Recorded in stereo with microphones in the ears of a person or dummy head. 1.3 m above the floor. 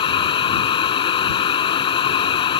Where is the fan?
30° left (ahead or behind).